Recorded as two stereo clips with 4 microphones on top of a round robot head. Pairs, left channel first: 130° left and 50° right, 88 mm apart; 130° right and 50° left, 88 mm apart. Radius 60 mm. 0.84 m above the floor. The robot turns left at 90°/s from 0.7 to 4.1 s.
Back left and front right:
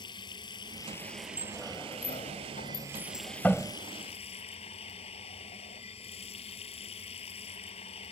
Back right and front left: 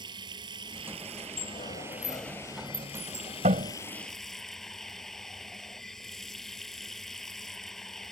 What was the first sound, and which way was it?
Running water, 90° left.